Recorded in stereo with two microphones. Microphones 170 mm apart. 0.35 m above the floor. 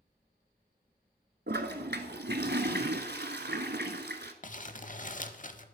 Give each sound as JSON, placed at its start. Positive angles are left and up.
{"t": 1.5, "sound": "a toilet flushing", "side_deg": -80, "distance_m": 0.8}
{"t": 4.4, "sound": "crumpling", "side_deg": 50, "distance_m": 0.6}